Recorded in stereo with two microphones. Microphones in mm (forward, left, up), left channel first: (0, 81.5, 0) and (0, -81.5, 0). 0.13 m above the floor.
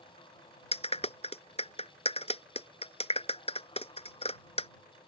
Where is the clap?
40° left (ahead or behind).